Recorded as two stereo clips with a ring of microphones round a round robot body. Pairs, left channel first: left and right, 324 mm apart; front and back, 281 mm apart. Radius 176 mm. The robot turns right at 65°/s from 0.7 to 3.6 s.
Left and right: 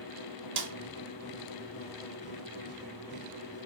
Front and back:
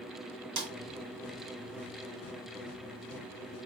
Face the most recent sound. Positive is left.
turn(degrees=45)